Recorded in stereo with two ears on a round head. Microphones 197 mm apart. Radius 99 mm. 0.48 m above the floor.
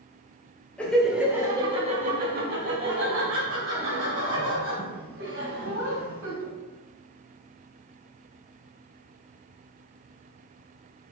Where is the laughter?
5° left (ahead or behind), 1.2 m; by 6.5 s 75° right (ahead or behind), 3.5 m.